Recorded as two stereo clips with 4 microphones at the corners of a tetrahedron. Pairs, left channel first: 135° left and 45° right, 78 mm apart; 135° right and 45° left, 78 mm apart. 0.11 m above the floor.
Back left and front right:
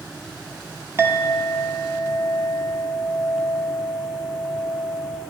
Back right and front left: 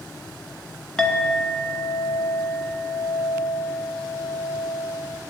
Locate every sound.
1.0 s a clink: 60° right, 0.9 m